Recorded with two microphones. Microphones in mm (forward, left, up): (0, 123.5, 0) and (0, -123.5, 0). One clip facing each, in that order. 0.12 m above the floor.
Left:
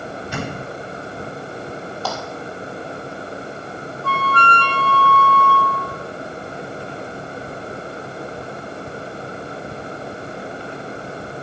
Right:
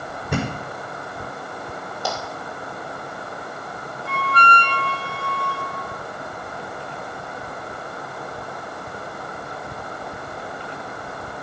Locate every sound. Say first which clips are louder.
0.3 s a thud: right 4 dB; 55° right (ahead or behind), 6.5 m
2.0 s a clap: even; 15° right (ahead or behind), 3 m
4.0 s a flute: left 2 dB; 15° right (ahead or behind), 1.1 m